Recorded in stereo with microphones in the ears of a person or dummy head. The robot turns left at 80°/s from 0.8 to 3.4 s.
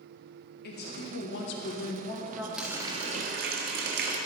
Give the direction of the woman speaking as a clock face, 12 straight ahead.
8 o'clock.